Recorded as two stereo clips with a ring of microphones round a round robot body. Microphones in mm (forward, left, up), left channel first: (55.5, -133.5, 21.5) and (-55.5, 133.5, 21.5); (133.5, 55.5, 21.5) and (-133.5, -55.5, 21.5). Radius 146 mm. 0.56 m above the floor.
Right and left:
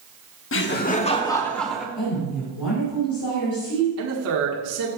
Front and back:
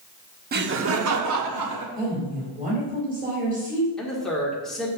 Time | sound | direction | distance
0.5 | laughter | 105° right | 0.9 m
1.9 | a woman speaking | 85° right | 4.5 m
4.0 | a man speaking | 110° left | 1.5 m